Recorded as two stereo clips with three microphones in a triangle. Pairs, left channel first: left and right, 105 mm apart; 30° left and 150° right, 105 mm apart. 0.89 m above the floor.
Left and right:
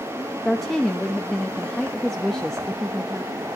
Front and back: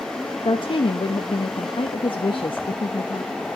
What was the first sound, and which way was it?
A woman speaking, 5° left.